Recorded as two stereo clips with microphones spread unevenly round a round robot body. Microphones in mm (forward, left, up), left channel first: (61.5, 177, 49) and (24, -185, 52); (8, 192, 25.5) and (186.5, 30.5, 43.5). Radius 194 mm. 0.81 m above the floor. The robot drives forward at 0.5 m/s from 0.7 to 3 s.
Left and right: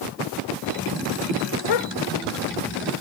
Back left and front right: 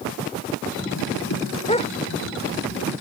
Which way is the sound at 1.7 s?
70° left.